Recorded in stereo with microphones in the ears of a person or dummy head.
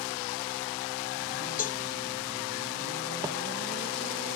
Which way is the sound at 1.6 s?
45° left (ahead or behind).